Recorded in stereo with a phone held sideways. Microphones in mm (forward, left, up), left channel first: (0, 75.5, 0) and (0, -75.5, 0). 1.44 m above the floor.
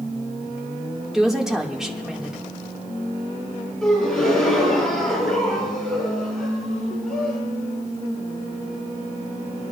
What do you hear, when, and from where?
1.1 s a woman speaking: 5° right (ahead or behind), 1.6 m
3.8 s a gasp: 5° left (ahead or behind), 5.5 m